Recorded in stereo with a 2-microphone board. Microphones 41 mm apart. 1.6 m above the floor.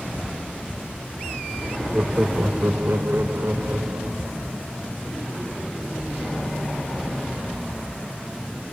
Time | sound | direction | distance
1.9 | laughter | 35° right (ahead or behind) | 0.9 m